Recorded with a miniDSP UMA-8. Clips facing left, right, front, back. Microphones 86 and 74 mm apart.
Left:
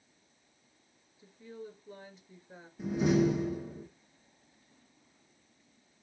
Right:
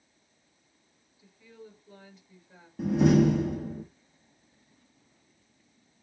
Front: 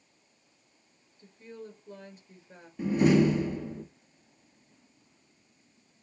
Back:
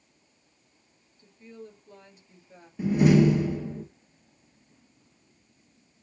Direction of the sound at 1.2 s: 40° left.